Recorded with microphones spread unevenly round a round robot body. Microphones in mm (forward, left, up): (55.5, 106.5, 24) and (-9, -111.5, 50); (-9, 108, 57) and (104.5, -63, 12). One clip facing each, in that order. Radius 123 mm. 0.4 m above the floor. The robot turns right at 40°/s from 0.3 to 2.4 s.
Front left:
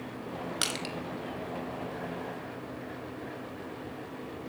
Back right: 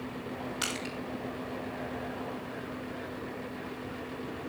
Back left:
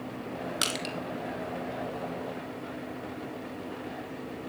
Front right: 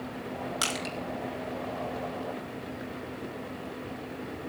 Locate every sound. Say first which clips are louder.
0.6 s crushing: even, even; 60° left, 2.5 m; by 0.9 s 75° left, 2.5 m